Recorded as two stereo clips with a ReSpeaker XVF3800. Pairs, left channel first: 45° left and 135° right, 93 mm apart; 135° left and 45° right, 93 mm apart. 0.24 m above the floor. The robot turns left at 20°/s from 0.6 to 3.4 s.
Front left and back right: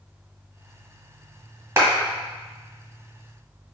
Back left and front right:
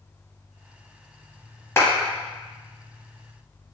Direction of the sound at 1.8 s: Straight behind.